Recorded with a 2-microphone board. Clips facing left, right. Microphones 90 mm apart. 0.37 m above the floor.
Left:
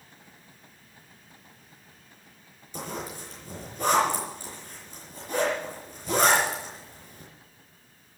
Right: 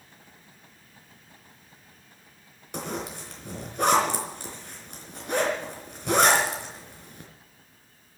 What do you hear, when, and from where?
2.7 s a zipper: 75° right (ahead or behind), 4.5 m